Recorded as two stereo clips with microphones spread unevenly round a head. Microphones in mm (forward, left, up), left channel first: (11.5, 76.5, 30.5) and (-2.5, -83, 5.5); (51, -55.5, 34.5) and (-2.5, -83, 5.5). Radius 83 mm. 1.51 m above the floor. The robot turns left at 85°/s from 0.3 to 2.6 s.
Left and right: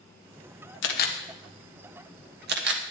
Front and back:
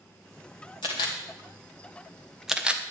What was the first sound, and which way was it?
A camera shutter, 70° left.